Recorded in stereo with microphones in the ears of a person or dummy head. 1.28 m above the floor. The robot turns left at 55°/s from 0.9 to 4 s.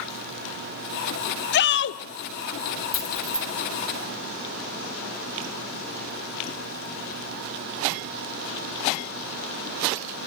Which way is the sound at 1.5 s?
45° left (ahead or behind).